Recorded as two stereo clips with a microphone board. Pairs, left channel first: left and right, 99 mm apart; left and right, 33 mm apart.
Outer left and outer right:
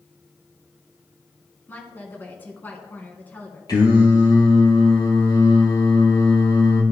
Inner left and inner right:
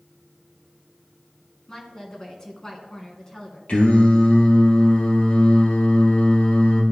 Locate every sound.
1.7 s a woman speaking: 20° left (ahead or behind), 2 m
3.7 s singing: 45° left (ahead or behind), 2.5 m